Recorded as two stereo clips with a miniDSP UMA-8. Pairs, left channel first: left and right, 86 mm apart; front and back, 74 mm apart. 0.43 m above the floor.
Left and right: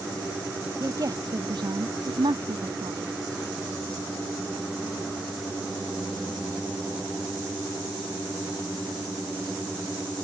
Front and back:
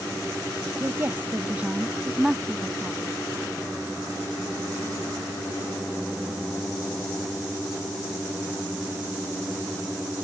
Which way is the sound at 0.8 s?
135° right.